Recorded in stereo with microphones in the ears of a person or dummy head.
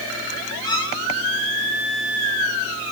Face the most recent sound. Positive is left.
turn(degrees=20)  # may be behind; listen again after turning